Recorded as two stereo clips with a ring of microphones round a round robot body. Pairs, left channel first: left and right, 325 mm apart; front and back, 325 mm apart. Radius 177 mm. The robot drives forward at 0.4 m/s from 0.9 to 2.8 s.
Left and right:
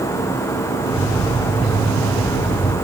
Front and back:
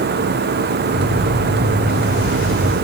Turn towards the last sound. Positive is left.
No sound to turn to.